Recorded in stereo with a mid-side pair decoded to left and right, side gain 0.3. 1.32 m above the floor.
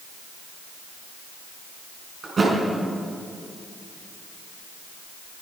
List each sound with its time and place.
2.2 s a thud: 55° right, 6.5 m